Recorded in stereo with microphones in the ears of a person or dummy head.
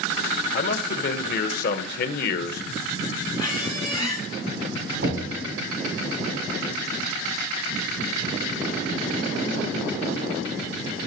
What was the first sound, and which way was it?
A man speaking, 60° left (ahead or behind).